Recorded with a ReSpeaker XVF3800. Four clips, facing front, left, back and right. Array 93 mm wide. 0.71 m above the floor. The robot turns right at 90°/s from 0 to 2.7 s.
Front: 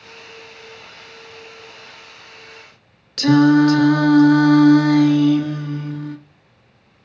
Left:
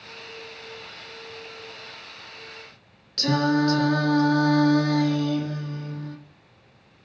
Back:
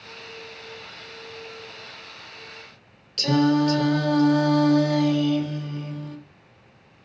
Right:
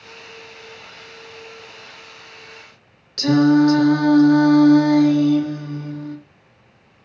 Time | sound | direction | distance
3.2 | singing | straight ahead | 1.8 m